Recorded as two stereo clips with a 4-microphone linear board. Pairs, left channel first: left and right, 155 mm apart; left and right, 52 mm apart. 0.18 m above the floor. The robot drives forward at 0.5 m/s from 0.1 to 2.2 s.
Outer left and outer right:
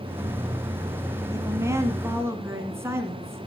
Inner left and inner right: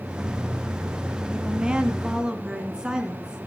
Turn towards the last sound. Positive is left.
turn(degrees=-15)  # may be behind; listen again after turning